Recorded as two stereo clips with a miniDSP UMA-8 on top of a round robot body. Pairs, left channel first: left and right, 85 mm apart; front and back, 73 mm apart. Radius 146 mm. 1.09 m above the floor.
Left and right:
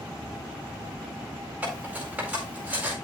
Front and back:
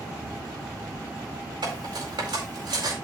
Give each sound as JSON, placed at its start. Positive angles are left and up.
{"t": 1.6, "sound": "cutlery clinking", "azimuth_deg": -165, "distance_m": 4.5}